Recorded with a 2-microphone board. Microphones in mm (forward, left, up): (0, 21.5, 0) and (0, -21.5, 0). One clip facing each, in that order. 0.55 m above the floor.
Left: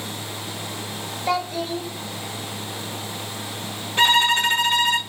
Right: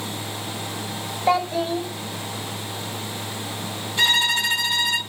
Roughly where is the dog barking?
I don't hear a dog barking.